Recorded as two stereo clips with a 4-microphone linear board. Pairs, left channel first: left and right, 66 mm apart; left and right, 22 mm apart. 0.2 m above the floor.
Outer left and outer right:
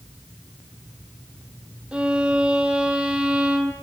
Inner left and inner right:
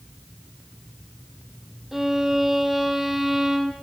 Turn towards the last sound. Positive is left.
turn(degrees=-15)  # may be behind; listen again after turning